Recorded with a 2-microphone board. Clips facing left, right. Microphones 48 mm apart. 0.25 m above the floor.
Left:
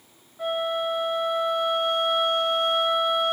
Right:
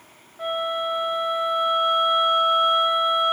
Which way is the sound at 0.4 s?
10° right (ahead or behind).